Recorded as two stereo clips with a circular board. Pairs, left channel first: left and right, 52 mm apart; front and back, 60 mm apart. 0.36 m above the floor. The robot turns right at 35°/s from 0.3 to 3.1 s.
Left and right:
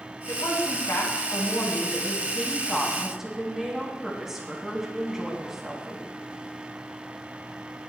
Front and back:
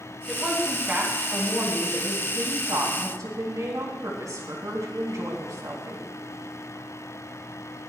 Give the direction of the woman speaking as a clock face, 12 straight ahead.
9 o'clock.